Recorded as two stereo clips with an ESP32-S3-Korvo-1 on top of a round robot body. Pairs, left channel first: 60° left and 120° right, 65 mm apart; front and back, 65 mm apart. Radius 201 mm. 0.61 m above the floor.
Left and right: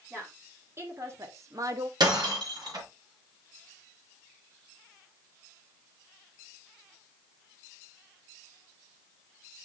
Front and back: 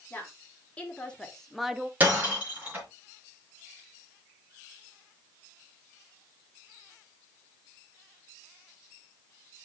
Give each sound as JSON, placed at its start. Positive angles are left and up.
{"t": 0.1, "sound": "a woman speaking", "azimuth_deg": -65, "distance_m": 3.0}
{"t": 2.0, "sound": "breaking glass", "azimuth_deg": -115, "distance_m": 4.0}